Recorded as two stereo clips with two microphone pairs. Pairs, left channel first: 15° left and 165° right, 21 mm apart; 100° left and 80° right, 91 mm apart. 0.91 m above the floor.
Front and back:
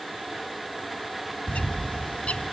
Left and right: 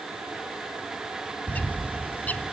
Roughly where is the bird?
Ahead left.